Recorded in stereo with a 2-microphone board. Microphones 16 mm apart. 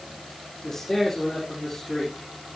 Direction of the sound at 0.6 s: 40° left (ahead or behind).